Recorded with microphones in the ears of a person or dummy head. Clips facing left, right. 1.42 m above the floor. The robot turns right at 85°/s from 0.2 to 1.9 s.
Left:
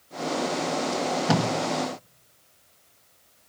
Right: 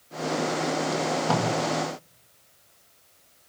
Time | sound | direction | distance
0.9 | tape being pulled | 15° right (ahead or behind) | 1.9 m